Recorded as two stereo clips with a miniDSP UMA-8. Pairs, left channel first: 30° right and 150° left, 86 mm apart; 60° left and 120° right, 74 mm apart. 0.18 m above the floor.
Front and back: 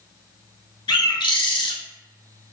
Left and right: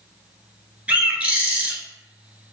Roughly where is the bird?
Ahead right.